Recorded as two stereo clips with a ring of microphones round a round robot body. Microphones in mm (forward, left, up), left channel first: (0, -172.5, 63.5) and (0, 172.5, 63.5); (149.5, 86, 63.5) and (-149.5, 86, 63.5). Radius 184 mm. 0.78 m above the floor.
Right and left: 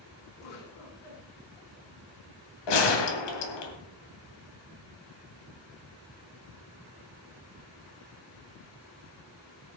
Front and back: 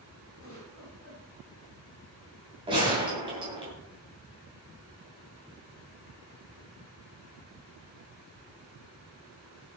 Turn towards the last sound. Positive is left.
turn(degrees=-105)